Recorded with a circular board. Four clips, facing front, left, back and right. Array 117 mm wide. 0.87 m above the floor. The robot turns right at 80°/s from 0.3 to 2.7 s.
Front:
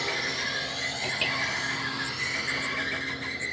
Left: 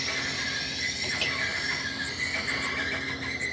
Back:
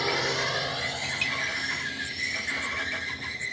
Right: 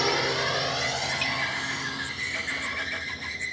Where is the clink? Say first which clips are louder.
Right 3 dB, front 2 dB; 20° left; by 1.4 s 45° left.